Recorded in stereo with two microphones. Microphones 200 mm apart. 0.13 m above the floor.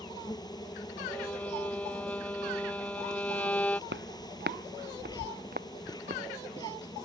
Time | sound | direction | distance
0.0 | an insect | 20° left (ahead or behind) | ?
1.1 | a violin | 5° left (ahead or behind) | ?
3.9 | footsteps | 65° right (ahead or behind) | ?